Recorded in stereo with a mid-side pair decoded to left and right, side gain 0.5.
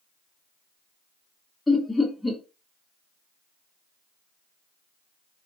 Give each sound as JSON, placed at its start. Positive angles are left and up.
{"t": 1.7, "sound": "laughter", "azimuth_deg": 15, "distance_m": 1.0}